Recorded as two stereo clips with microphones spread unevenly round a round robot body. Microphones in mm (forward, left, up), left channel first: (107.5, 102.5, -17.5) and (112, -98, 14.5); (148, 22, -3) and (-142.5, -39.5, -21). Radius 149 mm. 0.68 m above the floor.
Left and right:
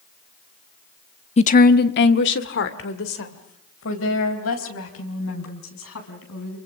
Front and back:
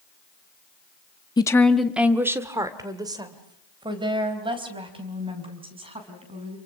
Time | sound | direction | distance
1.4 | a woman speaking | 85° left | 0.7 m